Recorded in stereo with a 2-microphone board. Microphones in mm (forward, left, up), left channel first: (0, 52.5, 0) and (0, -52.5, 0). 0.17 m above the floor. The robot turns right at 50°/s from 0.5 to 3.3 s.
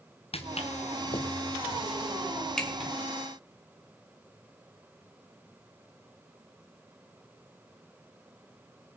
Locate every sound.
0.3 s footsteps: 80° left, 1.7 m; by 2.9 s 5° right (ahead or behind), 4.5 m